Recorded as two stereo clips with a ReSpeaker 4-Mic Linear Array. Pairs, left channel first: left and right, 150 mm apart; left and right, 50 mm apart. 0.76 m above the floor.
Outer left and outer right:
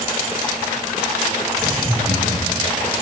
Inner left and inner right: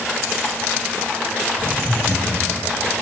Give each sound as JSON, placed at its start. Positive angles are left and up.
{"t": 1.6, "sound": "laughter", "side_deg": -35, "distance_m": 8.0}